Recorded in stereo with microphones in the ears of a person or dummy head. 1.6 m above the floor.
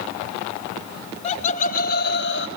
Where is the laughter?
45° left (ahead or behind), 1.4 m; by 2.5 s 80° left, 1.5 m.